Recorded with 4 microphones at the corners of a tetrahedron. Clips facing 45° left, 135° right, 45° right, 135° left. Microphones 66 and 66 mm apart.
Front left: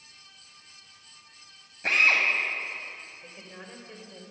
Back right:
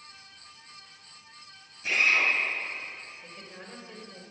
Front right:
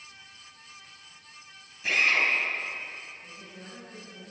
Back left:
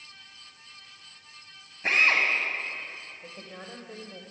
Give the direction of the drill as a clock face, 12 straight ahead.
9 o'clock.